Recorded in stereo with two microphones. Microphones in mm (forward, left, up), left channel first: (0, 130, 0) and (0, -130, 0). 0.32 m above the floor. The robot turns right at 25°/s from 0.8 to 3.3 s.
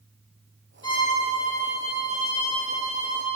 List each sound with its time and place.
0.8 s a violin: 15° left, 2.5 m; by 3.2 s 75° left, 2.5 m